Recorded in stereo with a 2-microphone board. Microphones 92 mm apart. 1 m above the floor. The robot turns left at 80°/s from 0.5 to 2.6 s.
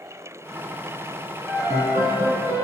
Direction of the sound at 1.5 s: 5° right.